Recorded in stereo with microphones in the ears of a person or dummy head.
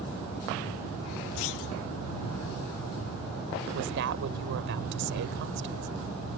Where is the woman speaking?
65° right (ahead or behind).